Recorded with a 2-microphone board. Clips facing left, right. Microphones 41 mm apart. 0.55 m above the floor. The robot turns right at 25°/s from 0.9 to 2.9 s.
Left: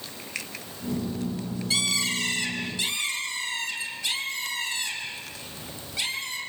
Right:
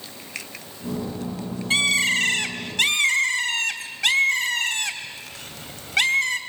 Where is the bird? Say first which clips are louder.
Right 8 dB; 135° right, 2.5 m; by 6.4 s 105° right, 2.5 m.